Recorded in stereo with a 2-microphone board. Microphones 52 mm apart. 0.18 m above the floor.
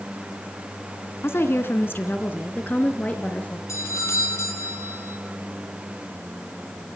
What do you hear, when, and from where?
1.2 s a woman speaking: 50° left (ahead or behind), 2.5 m; by 3.6 s 30° left (ahead or behind), 4 m
3.7 s a doorbell: 65° left (ahead or behind), 5.5 m